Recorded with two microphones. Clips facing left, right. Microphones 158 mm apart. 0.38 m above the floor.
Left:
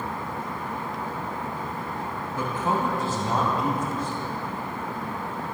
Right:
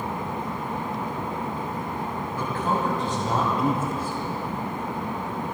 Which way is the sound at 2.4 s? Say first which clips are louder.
Even; 20° left (ahead or behind).